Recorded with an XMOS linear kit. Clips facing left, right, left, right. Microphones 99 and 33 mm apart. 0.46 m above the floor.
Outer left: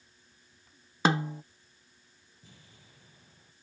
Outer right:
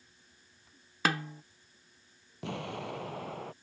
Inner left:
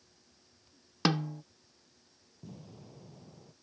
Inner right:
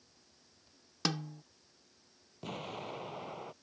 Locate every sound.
1.1 s a snare drum: 25° left (ahead or behind)
2.4 s an explosion: 75° right (ahead or behind)